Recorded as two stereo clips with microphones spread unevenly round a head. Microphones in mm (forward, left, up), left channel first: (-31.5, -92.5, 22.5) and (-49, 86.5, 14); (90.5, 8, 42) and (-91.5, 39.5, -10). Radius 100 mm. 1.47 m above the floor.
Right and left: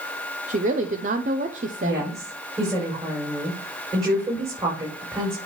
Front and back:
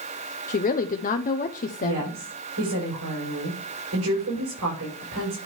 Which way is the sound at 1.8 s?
170° left.